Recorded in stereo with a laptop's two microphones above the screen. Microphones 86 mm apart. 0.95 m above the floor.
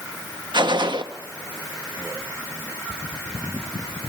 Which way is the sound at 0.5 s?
65° right (ahead or behind).